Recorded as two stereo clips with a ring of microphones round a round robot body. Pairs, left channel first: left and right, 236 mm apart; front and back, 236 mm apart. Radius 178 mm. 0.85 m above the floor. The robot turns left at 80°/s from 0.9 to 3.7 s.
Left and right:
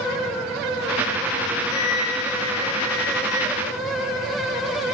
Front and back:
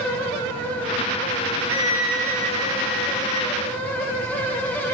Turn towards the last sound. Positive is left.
turn(degrees=-40)